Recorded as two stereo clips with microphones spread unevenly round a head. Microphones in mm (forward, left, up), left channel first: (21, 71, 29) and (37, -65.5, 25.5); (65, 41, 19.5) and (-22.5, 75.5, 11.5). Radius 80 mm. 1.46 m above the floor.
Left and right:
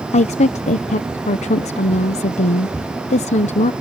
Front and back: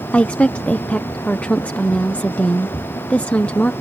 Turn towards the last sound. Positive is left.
turn(degrees=55)